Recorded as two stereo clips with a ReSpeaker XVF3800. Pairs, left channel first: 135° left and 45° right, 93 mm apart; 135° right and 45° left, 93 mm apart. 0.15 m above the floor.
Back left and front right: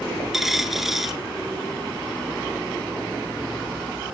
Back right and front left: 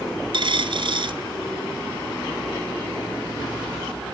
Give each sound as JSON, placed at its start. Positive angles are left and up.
{"t": 0.3, "sound": "a dropped coin", "azimuth_deg": 40, "distance_m": 1.0}